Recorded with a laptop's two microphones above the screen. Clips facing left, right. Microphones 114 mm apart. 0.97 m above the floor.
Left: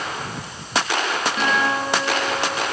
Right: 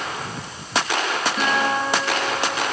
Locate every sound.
1.4 s a guitar: 5° left (ahead or behind), 9 m